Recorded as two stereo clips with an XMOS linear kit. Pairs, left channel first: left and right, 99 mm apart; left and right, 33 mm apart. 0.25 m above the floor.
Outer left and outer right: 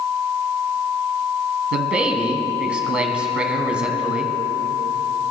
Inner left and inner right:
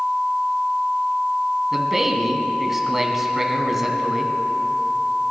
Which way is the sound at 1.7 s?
10° right (ahead or behind).